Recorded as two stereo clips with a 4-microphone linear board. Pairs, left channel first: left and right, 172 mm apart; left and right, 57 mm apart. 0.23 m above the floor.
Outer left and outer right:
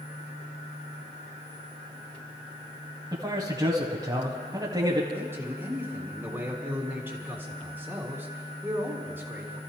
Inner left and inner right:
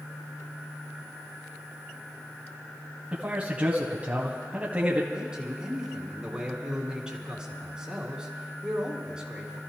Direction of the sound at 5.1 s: 10° right (ahead or behind).